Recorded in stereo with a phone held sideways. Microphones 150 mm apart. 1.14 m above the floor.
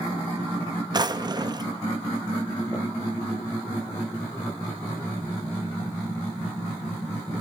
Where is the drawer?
30° right (ahead or behind), 0.5 m.